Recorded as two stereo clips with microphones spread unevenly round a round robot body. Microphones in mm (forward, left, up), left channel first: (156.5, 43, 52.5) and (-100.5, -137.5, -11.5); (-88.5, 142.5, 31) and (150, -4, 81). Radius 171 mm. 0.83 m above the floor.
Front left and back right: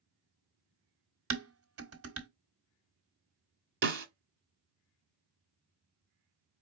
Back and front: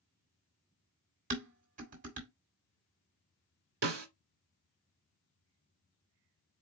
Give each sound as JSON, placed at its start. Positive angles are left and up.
{"t": 1.3, "sound": "dishes clattering", "azimuth_deg": -100, "distance_m": 1.5}
{"t": 3.8, "sound": "a snare drum", "azimuth_deg": -85, "distance_m": 1.5}